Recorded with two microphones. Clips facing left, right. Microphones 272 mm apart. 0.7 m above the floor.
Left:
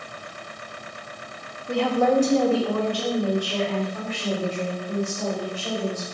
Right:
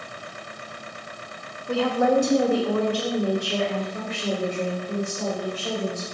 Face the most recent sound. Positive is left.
turn(degrees=-25)  # may be behind; listen again after turning